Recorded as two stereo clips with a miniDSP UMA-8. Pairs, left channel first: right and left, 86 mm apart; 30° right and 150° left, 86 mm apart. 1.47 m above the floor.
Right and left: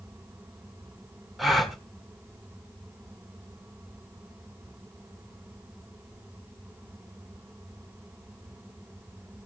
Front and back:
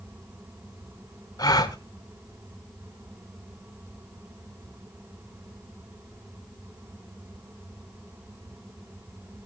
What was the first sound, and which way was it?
A gasp, straight ahead.